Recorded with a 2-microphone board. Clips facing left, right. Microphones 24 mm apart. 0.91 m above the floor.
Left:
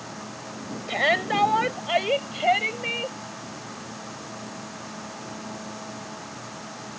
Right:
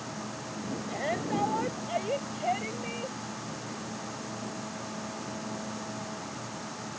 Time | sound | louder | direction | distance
0.9 | a shout | left 10 dB | 75° left (ahead or behind) | ?